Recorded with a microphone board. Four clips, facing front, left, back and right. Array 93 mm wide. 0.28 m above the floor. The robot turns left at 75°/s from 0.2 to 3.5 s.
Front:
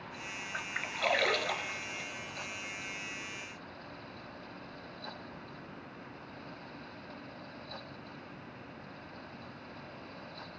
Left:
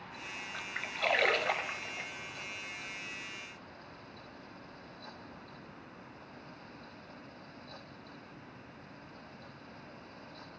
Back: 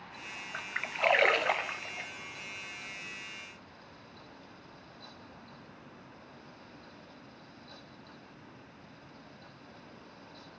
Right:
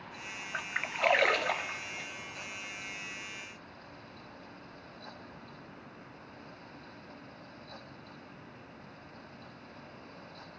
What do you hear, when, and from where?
0.5 s a splash: 105° right, 0.5 m; by 2.1 s 140° left, 0.5 m